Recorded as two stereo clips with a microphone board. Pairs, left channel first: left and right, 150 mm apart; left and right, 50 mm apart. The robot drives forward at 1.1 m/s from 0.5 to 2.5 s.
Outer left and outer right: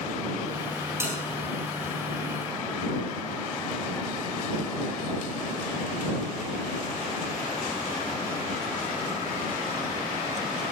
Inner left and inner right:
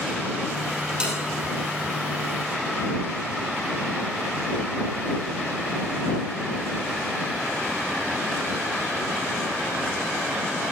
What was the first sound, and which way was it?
A bell, 20° right (ahead or behind).